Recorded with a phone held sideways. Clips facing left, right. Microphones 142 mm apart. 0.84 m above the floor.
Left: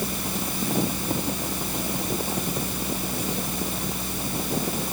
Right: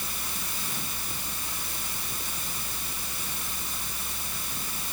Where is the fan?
65° left (ahead or behind).